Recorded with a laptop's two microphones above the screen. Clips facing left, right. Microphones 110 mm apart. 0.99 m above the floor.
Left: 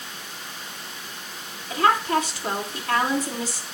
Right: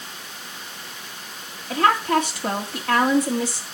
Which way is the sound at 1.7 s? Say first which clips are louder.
Right 2 dB; 70° right (ahead or behind).